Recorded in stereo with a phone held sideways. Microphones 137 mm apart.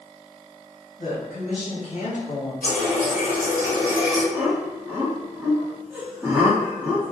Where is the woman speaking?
65° left (ahead or behind), 1.5 m.